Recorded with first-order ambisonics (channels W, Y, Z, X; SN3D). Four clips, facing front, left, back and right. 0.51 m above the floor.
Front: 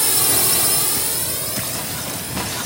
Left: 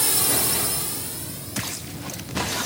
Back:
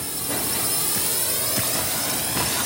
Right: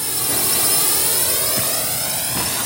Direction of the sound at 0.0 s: 15° left.